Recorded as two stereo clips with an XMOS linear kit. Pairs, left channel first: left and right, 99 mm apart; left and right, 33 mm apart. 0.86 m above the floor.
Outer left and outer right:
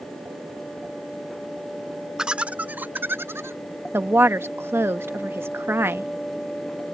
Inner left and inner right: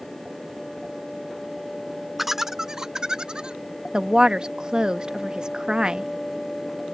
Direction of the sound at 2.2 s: 10° right (ahead or behind).